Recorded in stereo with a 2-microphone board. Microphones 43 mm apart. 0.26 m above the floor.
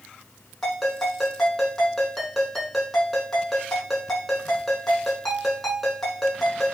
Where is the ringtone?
5° left (ahead or behind), 5.5 m.